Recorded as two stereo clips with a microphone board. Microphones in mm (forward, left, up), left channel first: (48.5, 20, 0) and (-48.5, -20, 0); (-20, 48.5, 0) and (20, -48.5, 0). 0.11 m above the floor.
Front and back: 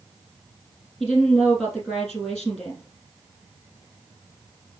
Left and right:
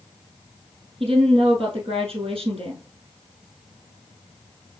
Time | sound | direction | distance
1.0 | a woman speaking | 70° right | 3 m